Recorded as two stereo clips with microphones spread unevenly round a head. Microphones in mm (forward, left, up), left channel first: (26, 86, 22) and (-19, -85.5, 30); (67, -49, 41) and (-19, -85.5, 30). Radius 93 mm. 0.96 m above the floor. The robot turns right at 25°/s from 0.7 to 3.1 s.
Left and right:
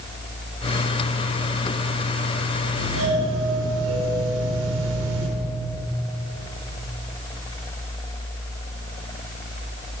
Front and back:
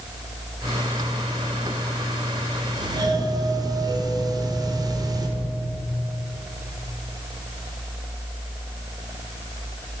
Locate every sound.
2.8 s a doorbell: 115° right, 4 m; by 5.3 s 110° right, 4 m